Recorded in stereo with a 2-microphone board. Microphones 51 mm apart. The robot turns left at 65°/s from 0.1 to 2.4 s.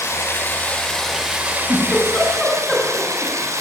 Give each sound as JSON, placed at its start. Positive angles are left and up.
{"t": 0.0, "sound": "running water", "azimuth_deg": 70, "distance_m": 5.0}
{"t": 1.5, "sound": "a giggle", "side_deg": 65, "distance_m": 8.5}